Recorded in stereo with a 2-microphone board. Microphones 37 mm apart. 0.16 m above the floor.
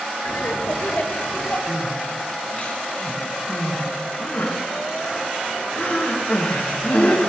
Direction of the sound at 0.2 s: 60° left (ahead or behind).